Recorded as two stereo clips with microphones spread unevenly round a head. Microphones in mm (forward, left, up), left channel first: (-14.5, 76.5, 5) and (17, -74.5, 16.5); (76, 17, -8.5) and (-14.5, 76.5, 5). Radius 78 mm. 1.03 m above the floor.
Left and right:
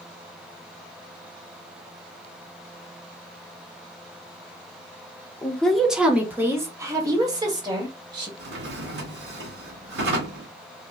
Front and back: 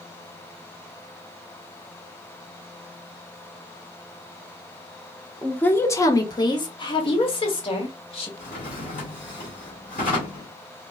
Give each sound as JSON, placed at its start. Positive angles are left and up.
{"t": 5.4, "sound": "a woman speaking", "azimuth_deg": 30, "distance_m": 0.8}
{"t": 8.4, "sound": "a drawer", "azimuth_deg": -65, "distance_m": 1.7}